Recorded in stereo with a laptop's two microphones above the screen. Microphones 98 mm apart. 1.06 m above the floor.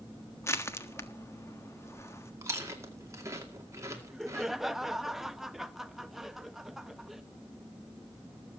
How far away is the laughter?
About 1.0 m.